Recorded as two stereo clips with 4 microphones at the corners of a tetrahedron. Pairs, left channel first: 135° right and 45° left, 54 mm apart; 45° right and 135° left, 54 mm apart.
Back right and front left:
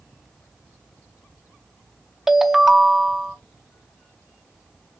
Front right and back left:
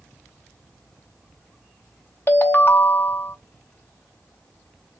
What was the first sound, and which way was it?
A ringtone, 30° right.